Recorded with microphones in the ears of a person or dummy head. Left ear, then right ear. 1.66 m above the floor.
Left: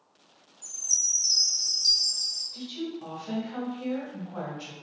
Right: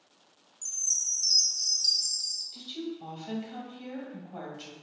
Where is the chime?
75° right (ahead or behind), 0.9 m.